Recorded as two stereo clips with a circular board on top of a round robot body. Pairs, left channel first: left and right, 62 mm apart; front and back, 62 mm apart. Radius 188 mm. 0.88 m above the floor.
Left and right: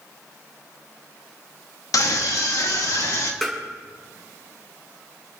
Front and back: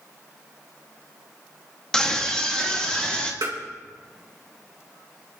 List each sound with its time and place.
1.9 s a scream: 80° left, 1.7 m; by 3.3 s 75° left, 2.5 m
3.4 s tapping: straight behind, 2 m